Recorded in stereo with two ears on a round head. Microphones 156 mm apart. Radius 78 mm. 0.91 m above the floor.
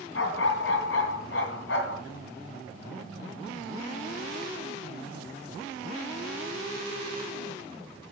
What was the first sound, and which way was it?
A dog barking, 80° left.